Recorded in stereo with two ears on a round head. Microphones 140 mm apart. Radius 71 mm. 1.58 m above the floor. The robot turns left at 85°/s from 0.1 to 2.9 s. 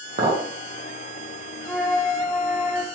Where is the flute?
5° right (ahead or behind), 0.7 m; by 2.9 s 20° left (ahead or behind), 0.7 m.